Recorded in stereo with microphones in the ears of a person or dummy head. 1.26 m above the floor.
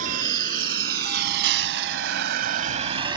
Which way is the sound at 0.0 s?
50° right (ahead or behind).